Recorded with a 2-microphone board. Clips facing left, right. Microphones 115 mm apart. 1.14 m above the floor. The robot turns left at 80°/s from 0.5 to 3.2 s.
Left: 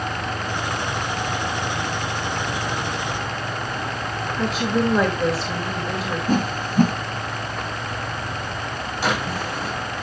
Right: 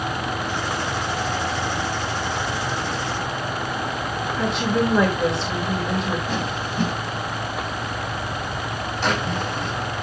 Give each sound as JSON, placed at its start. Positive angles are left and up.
{"t": 4.4, "sound": "a woman speaking", "side_deg": 0, "distance_m": 2.0}
{"t": 6.3, "sound": "a whoosh", "side_deg": 45, "distance_m": 1.5}
{"t": 9.0, "sound": "a drawer", "side_deg": 5, "distance_m": 5.0}